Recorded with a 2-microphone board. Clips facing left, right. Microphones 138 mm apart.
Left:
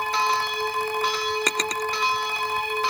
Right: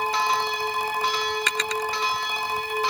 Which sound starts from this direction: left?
A drawer, at 1.5 s.